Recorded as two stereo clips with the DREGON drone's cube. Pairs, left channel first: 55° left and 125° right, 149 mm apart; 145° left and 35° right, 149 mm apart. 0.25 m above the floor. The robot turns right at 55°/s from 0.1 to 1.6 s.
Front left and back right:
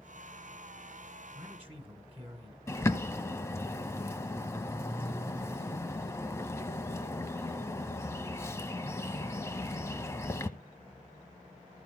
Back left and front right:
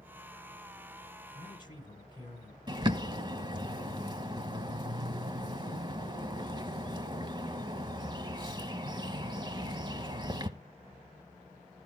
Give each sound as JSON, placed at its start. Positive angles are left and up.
{"t": 1.4, "sound": "a man speaking", "azimuth_deg": -175, "distance_m": 1.9}
{"t": 2.7, "sound": "a bird", "azimuth_deg": -5, "distance_m": 0.8}